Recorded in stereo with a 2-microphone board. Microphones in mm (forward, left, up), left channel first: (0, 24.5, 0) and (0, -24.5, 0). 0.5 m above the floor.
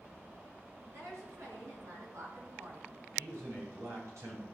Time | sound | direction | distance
0.9 | a woman speaking | 75° right (ahead or behind) | 6 m
3.2 | a man speaking | 75° right (ahead or behind) | 5.5 m